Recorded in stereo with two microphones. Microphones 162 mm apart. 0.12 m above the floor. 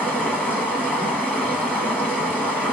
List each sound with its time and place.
0.0 s running water: 10° left (ahead or behind), 0.8 m